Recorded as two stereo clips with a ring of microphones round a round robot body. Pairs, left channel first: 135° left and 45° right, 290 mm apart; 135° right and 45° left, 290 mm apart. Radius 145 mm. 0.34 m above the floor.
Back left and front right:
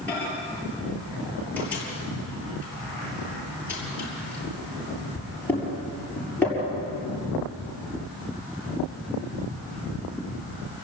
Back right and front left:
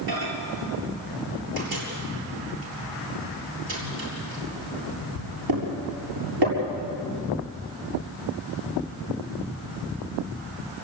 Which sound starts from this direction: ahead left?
A microwave, at 0.1 s.